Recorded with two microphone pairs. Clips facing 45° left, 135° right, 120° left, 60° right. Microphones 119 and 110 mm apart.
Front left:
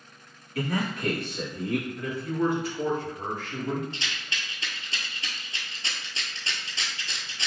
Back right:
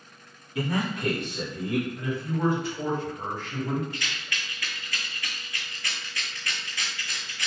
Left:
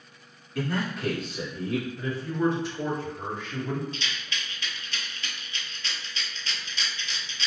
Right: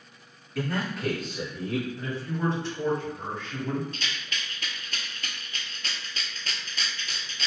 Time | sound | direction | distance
0.6 | a man speaking | 150° right | 1.5 m
2.0 | a man speaking | 175° right | 1.8 m
3.9 | a rattle | 15° right | 0.7 m